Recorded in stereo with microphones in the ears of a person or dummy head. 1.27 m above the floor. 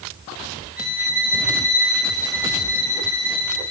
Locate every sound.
0.8 s a violin: 5° right (ahead or behind), 4 m